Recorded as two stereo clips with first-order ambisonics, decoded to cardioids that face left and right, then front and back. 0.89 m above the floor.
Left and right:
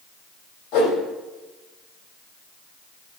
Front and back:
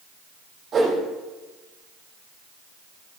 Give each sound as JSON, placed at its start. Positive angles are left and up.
{"t": 0.7, "sound": "a whoosh", "azimuth_deg": 115, "distance_m": 4.5}